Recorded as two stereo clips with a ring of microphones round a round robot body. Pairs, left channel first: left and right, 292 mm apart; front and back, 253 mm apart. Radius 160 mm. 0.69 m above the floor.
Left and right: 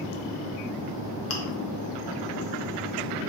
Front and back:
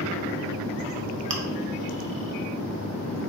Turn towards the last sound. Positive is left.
turn(degrees=135)